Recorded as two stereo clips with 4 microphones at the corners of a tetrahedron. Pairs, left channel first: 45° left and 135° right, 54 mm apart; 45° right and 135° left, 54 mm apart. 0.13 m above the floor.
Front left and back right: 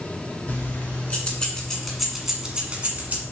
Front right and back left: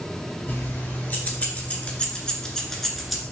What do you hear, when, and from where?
0.5 s keys jangling: 5° right, 1.4 m; by 3.2 s 140° right, 1.0 m